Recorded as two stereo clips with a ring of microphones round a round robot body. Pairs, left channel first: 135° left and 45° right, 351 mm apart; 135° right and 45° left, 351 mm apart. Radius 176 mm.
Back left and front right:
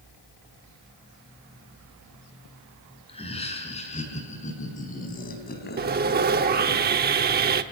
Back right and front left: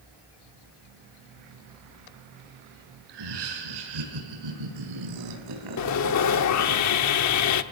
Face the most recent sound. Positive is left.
turn(degrees=-105)